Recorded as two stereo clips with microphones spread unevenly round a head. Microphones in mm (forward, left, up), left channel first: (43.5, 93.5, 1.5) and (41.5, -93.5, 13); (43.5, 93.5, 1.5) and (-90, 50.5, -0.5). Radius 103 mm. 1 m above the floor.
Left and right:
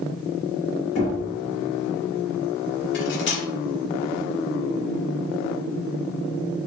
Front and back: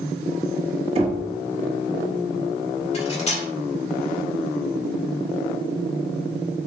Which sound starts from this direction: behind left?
Knocking, at 0.9 s.